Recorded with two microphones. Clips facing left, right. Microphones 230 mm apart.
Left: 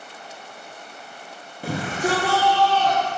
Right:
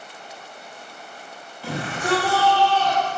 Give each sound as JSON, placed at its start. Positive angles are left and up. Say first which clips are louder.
{"t": 1.6, "sound": "a shout", "louder": "left 2 dB", "side_deg": 50, "distance_m": 2.5}